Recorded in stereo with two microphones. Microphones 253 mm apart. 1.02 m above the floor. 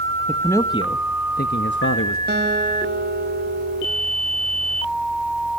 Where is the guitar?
40° right (ahead or behind), 4 m.